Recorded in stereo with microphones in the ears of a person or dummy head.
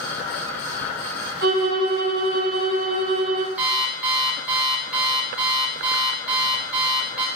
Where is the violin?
65° right (ahead or behind), 1.9 m.